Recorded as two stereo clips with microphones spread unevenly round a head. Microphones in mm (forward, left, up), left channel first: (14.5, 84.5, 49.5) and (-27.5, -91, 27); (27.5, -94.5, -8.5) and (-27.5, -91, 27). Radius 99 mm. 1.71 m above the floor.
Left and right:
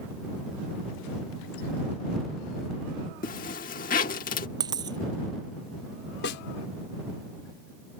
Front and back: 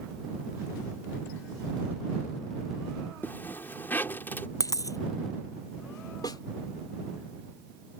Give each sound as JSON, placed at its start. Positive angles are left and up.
{"t": 3.2, "sound": "a zipper", "azimuth_deg": 95}
{"t": 4.6, "sound": "a dropped coin", "azimuth_deg": -30}
{"t": 6.2, "sound": "a snare drum", "azimuth_deg": 45}